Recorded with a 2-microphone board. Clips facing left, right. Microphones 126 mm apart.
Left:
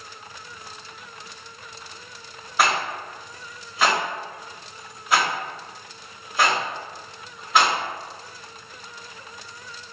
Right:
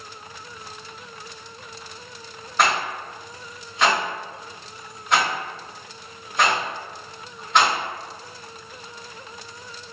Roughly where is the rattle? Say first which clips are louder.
Right 1 dB; centre.